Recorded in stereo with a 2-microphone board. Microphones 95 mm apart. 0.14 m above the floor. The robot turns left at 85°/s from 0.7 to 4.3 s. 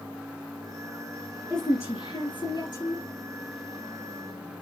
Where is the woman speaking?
170° left, 3 m; by 3.0 s 40° left, 3 m.